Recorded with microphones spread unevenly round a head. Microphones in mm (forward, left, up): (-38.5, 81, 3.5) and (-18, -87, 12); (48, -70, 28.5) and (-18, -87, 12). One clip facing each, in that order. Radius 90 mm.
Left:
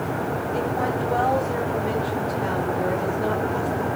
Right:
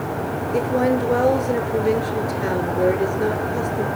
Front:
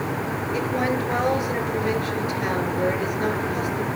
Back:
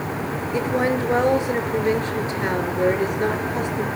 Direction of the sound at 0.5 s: 105° right.